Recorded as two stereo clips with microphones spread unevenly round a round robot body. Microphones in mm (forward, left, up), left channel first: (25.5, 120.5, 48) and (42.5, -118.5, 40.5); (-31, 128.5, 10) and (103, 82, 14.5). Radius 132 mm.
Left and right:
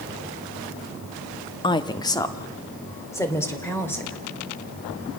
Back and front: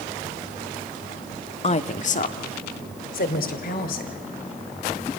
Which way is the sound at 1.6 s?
160° left.